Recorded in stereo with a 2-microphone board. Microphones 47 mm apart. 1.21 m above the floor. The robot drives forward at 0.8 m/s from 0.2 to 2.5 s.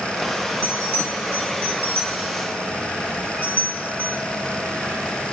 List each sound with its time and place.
0.6 s a bell: 60° right (ahead or behind), 2 m; by 4.2 s 45° right (ahead or behind), 2.5 m